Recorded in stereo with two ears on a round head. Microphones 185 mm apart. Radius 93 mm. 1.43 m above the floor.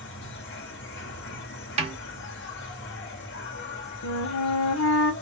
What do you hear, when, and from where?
0.0 s an insect: 60° left (ahead or behind), 1.4 m
1.8 s a snare drum: 30° right (ahead or behind), 1.1 m
4.0 s a flute: 75° left (ahead or behind), 0.9 m